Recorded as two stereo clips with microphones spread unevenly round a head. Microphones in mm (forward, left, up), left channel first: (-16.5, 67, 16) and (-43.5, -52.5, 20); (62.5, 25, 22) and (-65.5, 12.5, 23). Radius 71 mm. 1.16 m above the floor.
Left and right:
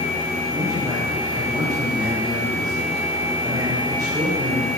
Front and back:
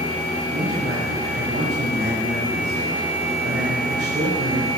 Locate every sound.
0.5 s a man speaking: 155° right, 3 m